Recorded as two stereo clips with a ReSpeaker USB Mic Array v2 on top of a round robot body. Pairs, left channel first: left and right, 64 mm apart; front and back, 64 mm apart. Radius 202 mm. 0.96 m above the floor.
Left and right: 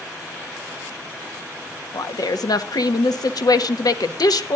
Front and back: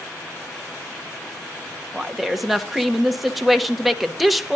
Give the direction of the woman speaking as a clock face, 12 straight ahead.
9 o'clock.